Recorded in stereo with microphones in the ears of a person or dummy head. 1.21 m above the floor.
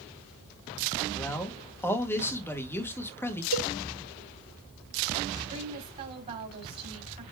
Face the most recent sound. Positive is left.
turn(degrees=-35)  # may be behind; listen again after turning